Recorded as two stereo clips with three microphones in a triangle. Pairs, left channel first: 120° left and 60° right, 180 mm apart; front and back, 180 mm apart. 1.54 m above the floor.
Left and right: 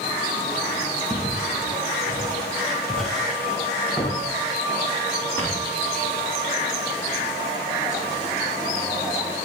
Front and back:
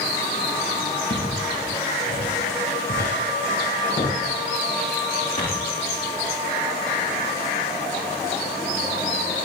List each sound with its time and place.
1.1 s footsteps: 20° left, 9 m; by 5.6 s 45° left, 11.5 m